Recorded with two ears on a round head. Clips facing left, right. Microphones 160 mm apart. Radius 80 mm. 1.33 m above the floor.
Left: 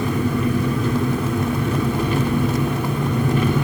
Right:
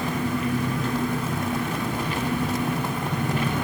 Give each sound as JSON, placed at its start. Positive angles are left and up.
{"t": 0.0, "sound": "an engine running", "side_deg": 85, "distance_m": 3.5}